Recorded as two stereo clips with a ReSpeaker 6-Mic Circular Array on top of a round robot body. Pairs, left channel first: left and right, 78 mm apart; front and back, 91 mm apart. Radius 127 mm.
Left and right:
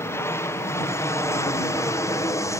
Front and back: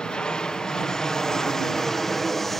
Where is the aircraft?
75° left; by 2.6 s 85° left.